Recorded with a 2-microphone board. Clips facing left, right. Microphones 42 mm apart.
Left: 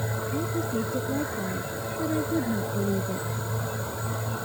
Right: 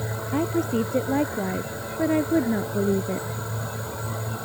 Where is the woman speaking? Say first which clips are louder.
Right 7 dB; 60° right (ahead or behind); by 3.3 s 40° right (ahead or behind).